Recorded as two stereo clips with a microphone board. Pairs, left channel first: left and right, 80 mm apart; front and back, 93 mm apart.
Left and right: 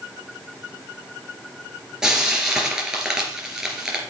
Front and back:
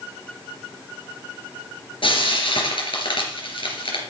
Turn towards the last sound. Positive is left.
turn(degrees=-10)